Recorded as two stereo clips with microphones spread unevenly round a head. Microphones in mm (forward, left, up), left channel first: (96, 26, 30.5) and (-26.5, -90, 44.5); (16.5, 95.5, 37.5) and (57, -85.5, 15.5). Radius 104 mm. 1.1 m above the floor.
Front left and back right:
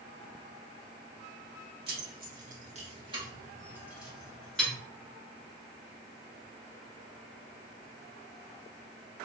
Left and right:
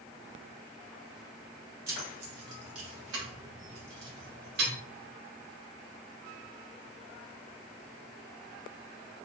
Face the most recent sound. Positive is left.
turn(degrees=-40)